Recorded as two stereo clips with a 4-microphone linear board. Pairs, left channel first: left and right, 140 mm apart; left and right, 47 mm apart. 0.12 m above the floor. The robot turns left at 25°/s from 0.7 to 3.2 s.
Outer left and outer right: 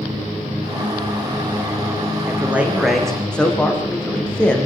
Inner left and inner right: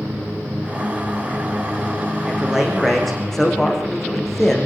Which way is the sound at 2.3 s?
15° right (ahead or behind).